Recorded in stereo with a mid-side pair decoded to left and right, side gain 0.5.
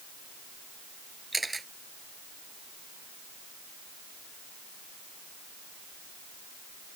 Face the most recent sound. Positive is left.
turn(degrees=-15)